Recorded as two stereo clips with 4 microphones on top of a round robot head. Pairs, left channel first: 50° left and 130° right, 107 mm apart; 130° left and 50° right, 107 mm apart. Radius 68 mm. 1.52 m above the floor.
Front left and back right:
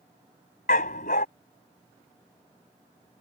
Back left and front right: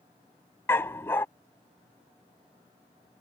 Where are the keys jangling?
I don't hear keys jangling.